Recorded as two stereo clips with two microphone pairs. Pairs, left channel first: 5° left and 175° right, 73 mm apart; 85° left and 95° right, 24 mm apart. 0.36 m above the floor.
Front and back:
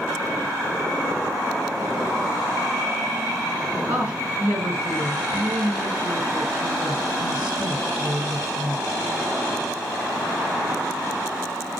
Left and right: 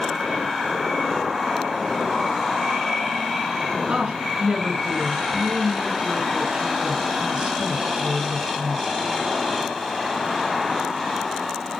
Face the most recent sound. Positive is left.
turn(degrees=-120)